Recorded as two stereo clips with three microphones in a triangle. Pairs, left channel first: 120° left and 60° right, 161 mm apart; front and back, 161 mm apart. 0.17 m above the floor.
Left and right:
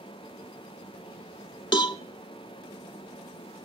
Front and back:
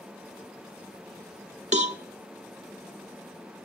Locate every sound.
1.7 s a cowbell: 170° left, 0.6 m